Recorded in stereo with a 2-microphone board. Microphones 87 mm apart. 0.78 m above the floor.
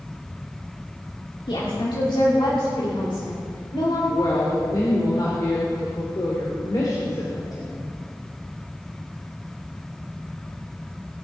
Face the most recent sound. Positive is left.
turn(degrees=50)  # may be behind; listen again after turning